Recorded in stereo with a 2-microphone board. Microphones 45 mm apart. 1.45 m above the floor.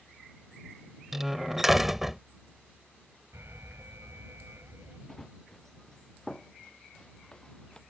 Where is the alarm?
75° right (ahead or behind).